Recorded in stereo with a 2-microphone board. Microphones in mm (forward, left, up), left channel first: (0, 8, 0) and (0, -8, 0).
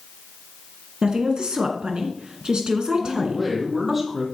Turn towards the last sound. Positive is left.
turn(degrees=-15)  # may be behind; listen again after turning